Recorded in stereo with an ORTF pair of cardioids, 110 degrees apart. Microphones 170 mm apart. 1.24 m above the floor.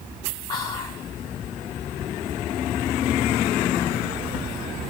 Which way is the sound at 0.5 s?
25° left.